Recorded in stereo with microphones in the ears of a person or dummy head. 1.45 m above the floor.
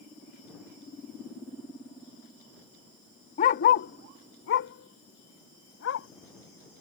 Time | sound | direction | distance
3.4 | a dog barking | 30° left (ahead or behind) | ?